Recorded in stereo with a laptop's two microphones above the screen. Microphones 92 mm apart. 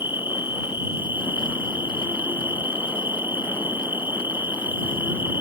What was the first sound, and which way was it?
An insect, 25° right (ahead or behind).